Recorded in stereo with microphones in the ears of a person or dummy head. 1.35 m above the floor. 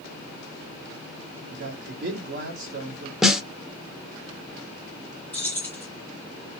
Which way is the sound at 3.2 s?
5° right (ahead or behind).